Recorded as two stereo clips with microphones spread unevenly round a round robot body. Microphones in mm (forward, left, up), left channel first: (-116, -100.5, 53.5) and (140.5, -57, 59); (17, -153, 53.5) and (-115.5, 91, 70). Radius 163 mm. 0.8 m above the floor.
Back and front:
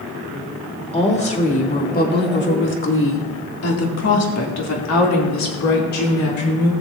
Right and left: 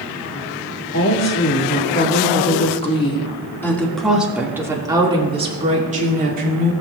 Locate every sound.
0.9 s a woman speaking: 105° right, 2 m; by 6.7 s 175° left, 2.5 m